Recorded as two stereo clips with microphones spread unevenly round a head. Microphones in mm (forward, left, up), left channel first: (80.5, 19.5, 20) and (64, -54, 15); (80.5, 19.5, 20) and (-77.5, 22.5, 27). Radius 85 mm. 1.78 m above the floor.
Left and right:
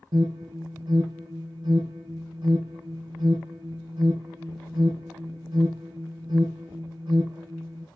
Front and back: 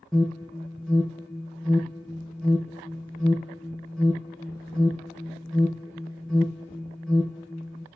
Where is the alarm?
90° right, 3 m.